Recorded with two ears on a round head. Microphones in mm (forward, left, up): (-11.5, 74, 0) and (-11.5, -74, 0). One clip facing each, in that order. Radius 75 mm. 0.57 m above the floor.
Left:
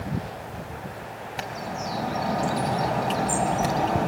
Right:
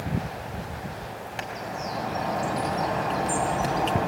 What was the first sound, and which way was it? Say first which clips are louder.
A bird: left 2 dB; 5° left (ahead or behind).